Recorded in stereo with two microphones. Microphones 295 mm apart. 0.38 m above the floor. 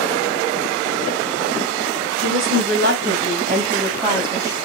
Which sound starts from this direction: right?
A woman speaking, at 2.2 s.